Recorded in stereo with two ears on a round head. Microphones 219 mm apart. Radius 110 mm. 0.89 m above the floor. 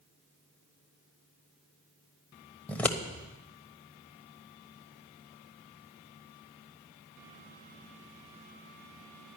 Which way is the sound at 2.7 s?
5° left (ahead or behind).